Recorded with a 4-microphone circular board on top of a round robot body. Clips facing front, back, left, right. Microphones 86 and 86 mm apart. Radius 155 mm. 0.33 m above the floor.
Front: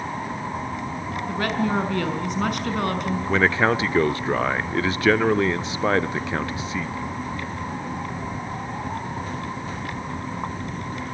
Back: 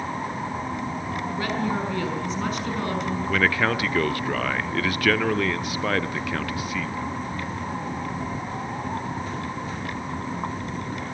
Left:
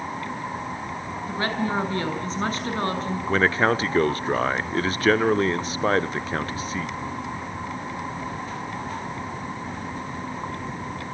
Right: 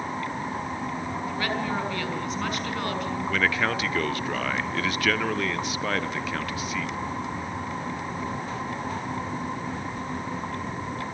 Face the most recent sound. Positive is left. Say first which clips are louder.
# front 3 dB, left 6 dB
turn(degrees=55)